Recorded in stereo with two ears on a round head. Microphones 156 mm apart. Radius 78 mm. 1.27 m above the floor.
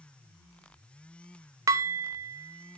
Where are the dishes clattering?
20° right (ahead or behind), 0.6 m.